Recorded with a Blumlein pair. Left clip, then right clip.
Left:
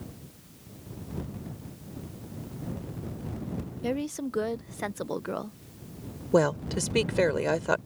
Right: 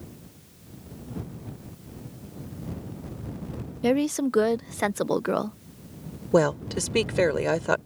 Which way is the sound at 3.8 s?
25° right.